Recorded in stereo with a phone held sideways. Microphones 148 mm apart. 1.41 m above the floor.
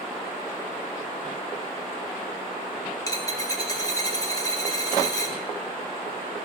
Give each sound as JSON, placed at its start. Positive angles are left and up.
{"t": 3.1, "sound": "a dropped coin", "side_deg": 25, "distance_m": 1.2}